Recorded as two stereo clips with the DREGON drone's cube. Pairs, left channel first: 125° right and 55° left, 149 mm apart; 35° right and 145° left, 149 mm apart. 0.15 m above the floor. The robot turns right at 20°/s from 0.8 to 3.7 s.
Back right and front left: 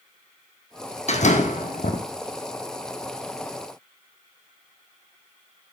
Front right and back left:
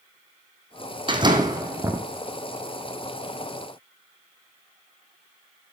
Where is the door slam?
160° right, 3 m; by 2.0 s 140° right, 3 m.